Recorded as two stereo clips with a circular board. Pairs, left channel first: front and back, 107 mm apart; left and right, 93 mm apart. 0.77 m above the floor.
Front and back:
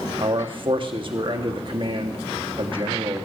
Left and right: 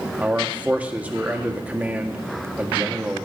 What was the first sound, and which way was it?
A man speaking, 160° right.